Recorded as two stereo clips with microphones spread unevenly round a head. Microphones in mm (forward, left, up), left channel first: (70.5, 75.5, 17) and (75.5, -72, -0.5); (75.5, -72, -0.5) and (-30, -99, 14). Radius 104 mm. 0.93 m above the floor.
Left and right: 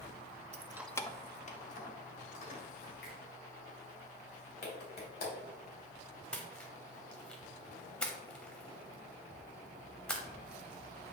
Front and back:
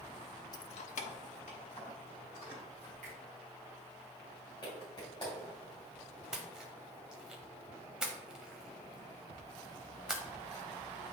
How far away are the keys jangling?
About 0.6 m.